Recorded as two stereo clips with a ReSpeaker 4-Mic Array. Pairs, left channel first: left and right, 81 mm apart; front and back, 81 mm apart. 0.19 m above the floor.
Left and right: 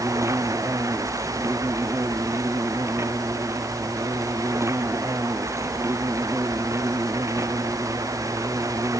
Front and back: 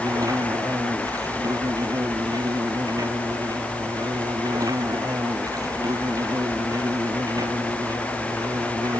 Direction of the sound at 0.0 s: 140° right.